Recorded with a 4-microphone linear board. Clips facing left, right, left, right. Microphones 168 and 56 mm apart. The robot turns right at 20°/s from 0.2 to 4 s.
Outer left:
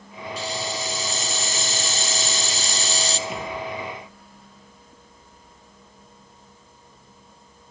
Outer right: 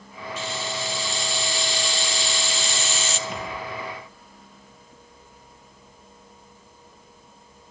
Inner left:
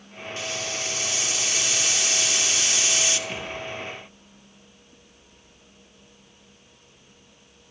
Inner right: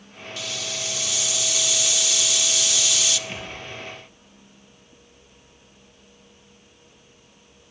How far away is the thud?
About 5 m.